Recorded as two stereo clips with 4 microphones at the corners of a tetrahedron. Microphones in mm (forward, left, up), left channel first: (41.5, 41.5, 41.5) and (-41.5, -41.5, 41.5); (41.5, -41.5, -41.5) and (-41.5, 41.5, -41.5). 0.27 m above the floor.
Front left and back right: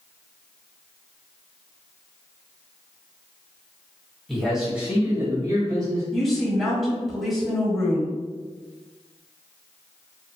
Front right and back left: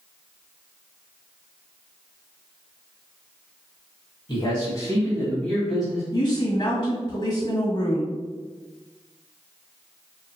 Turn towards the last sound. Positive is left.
turn(degrees=-45)